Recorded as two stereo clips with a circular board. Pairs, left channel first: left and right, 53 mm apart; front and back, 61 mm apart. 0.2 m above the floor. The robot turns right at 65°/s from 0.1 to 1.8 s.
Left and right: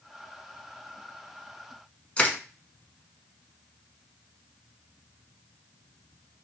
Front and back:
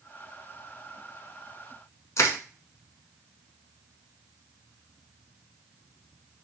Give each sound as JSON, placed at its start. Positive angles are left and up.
{"t": 2.2, "sound": "crushing", "azimuth_deg": 25, "distance_m": 0.6}